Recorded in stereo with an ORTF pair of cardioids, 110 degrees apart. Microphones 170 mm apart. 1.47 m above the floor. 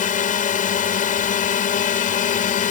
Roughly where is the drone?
Ahead left.